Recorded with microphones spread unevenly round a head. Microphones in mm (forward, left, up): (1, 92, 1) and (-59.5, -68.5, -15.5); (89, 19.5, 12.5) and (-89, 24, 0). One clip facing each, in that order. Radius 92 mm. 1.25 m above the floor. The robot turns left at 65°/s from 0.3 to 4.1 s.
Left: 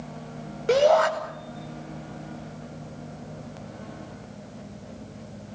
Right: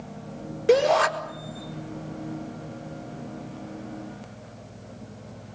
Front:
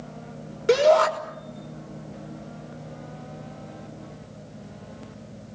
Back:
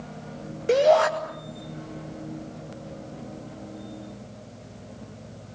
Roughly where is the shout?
Ahead right.